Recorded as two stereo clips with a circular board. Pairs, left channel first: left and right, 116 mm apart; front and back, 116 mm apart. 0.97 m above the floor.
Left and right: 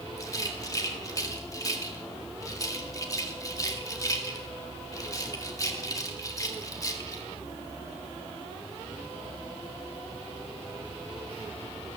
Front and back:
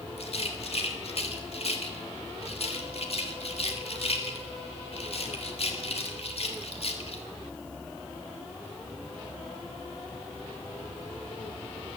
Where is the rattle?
30° left, 1.6 m.